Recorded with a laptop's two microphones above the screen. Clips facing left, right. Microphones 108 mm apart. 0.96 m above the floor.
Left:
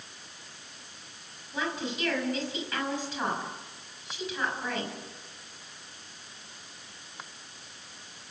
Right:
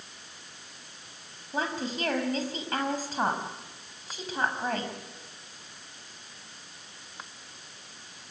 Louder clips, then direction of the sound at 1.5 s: Right 2 dB; 40° right (ahead or behind).